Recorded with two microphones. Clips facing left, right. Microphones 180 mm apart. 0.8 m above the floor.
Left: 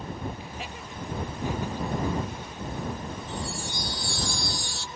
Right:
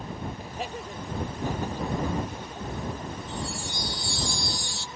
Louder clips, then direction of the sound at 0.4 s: Right 4 dB; 40° right (ahead or behind).